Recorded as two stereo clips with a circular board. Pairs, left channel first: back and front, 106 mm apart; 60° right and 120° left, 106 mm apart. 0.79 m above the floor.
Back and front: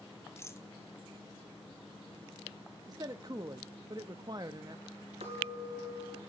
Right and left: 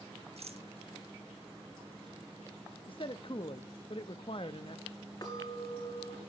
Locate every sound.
0.4 s a rattle: 115° left, 1.3 m
2.9 s a man speaking: 45° right, 0.7 m
5.2 s a clink: 5° right, 7.5 m